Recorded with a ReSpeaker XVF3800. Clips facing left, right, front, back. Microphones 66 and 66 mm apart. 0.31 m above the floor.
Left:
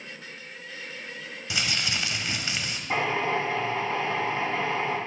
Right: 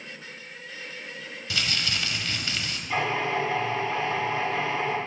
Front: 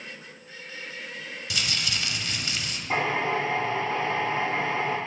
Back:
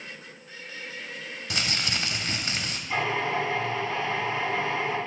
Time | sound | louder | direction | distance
1.5 | crumpling | even, back 1 dB | 155° left | 0.8 m
2.9 | a drill | even, front 2 dB | 40° left | 4 m